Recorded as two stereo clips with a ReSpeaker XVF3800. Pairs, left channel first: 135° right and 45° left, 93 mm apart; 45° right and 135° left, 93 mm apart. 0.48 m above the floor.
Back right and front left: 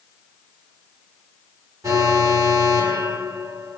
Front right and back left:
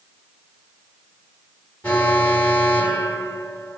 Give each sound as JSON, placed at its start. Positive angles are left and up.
{"t": 1.8, "sound": "an alarm", "azimuth_deg": 20, "distance_m": 2.0}